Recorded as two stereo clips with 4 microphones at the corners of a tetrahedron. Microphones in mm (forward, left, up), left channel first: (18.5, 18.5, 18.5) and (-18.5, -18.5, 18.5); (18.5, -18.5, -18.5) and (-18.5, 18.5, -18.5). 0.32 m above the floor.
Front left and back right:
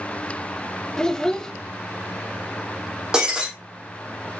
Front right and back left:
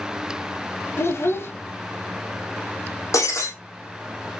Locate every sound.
1.0 s a child speaking: 30° right, 0.7 m
3.1 s breaking glass: 60° right, 4.5 m